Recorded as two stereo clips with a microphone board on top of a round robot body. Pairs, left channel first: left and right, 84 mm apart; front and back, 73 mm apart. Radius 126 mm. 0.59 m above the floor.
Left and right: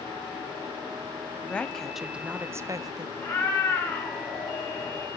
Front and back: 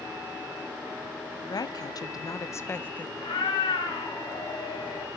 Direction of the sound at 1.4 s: 20° left.